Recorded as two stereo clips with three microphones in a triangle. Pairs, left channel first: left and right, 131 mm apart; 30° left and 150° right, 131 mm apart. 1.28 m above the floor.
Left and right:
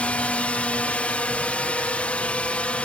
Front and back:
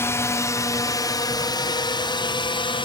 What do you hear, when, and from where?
0.0 s a drone: 30° left; by 2.9 s 15° left